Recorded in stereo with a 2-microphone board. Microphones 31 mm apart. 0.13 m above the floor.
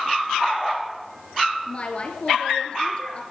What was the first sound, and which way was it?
A woman speaking, 35° left (ahead or behind).